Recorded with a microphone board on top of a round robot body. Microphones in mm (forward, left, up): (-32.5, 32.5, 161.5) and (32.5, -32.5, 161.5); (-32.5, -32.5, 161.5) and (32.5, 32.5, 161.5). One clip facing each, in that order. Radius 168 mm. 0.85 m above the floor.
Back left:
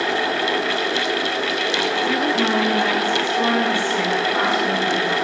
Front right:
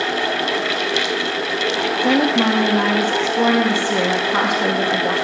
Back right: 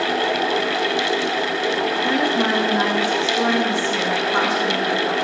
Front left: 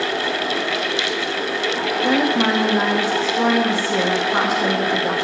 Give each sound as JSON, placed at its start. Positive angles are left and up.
{"t": 2.0, "sound": "a woman speaking", "azimuth_deg": -30, "distance_m": 1.4}